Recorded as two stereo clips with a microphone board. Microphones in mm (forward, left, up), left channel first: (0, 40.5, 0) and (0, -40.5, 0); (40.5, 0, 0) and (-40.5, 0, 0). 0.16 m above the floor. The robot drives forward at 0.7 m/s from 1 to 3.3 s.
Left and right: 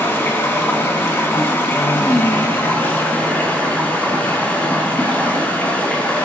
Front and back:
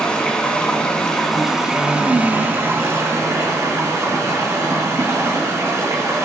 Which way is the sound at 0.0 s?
70° left.